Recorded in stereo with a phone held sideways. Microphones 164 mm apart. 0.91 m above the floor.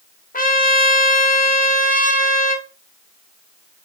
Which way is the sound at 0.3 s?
60° left (ahead or behind).